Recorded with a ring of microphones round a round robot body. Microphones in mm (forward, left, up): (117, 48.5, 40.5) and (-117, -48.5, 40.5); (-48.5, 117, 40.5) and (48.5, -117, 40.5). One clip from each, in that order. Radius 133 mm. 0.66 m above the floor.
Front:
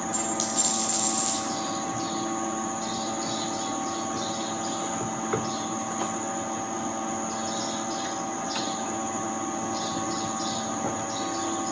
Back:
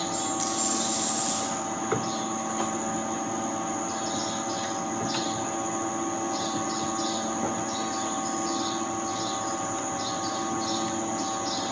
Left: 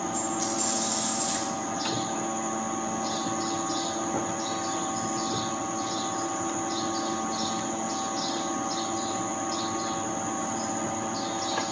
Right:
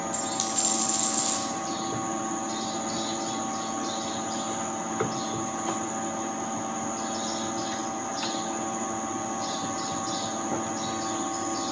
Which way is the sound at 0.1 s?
40° right.